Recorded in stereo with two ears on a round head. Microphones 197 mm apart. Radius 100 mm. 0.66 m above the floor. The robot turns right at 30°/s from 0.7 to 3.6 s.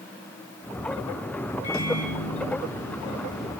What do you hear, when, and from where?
1.6 s a microwave: 65° left, 5.5 m; by 3.5 s 125° left, 5.5 m